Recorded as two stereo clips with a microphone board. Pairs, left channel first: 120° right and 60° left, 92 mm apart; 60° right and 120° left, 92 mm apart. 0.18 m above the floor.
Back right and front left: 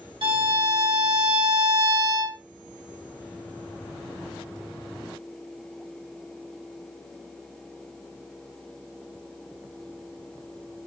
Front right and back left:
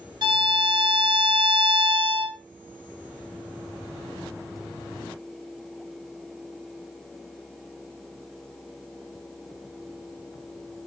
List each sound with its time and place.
0.2 s a violin: 85° left, 2 m